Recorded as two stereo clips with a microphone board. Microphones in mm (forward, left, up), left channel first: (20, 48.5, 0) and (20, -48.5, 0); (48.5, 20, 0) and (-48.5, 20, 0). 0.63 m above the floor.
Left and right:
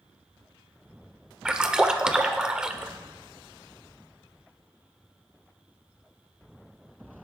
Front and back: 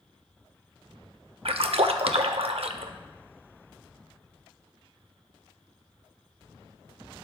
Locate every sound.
1.4 s a splash: 170° right, 0.6 m